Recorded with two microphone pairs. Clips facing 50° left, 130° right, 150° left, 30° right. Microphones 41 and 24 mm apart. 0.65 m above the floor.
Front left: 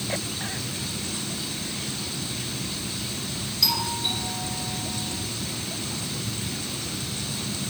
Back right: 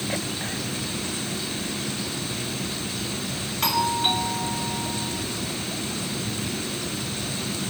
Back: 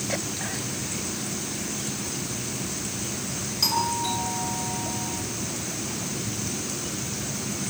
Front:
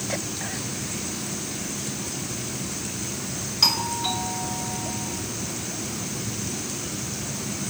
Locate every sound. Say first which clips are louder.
3.6 s a doorbell: back right 5 dB, front 2 dB; 90° right, 4.5 m